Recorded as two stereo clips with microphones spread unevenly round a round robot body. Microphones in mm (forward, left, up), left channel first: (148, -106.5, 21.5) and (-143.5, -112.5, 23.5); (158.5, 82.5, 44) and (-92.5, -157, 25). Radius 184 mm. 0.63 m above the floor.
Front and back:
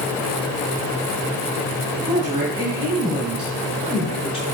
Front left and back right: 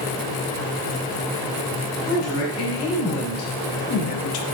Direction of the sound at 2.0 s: 100° left.